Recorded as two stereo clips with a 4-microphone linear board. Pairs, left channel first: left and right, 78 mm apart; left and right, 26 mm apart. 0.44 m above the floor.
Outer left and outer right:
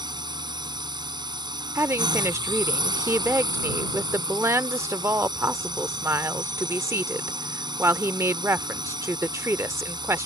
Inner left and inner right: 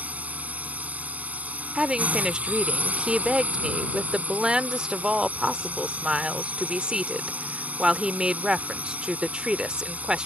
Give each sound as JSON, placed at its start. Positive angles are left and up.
{"t": 0.0, "sound": "a drone", "side_deg": -70}
{"t": 1.8, "sound": "a woman speaking", "side_deg": -35}